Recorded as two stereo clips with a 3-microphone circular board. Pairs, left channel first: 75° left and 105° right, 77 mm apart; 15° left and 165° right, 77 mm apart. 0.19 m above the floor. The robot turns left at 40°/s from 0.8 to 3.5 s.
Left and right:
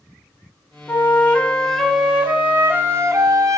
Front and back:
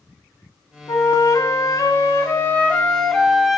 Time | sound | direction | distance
0.9 | a flute | 20° left | 0.9 m